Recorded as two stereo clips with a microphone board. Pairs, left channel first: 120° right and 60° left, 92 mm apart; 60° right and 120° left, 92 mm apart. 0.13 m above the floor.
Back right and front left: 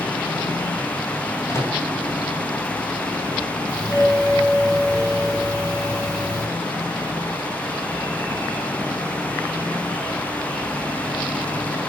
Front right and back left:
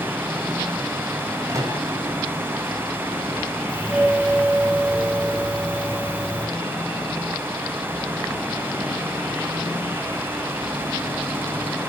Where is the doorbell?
165° right, 5 m.